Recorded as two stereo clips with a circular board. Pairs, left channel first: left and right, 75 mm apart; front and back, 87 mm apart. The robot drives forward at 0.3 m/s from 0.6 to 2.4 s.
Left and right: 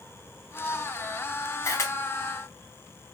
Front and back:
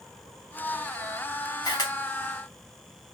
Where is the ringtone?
No ringtone in this recording.